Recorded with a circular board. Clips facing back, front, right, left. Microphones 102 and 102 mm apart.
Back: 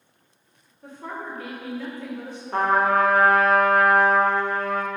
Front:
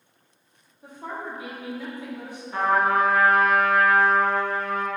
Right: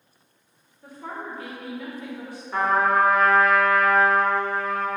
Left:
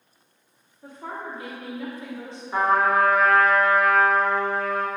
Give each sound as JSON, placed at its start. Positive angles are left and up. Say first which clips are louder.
{"t": 0.8, "sound": "a woman speaking", "louder": "even, even", "azimuth_deg": 60, "distance_m": 0.9}
{"t": 2.5, "sound": "a trumpet", "louder": "back 1 dB, left 1 dB", "azimuth_deg": 170, "distance_m": 0.5}